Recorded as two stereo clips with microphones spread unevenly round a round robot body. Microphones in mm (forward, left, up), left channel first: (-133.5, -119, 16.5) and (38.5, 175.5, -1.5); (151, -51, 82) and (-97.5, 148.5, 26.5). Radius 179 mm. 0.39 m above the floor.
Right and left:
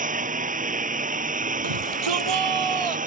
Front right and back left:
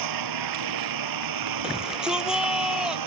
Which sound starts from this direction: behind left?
A lawn mower, at 0.0 s.